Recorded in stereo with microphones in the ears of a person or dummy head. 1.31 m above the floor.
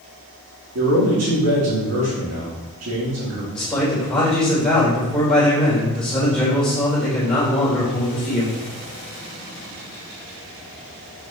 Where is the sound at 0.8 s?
70° right (ahead or behind), 2.5 m.